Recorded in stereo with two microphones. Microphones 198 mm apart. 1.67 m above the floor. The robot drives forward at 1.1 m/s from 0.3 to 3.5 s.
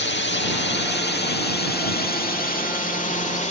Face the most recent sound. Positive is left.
turn(degrees=35)  # may be behind; listen again after turning